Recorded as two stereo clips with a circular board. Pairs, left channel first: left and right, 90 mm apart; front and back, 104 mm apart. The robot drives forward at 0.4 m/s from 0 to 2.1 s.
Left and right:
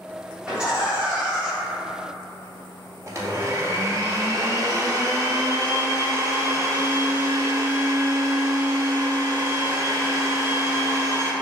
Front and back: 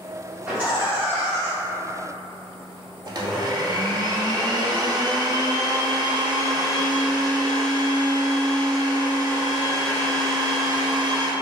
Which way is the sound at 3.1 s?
140° right.